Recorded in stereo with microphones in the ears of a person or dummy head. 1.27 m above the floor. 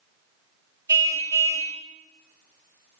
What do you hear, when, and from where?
0.9 s a car horn: 20° right (ahead or behind), 3 m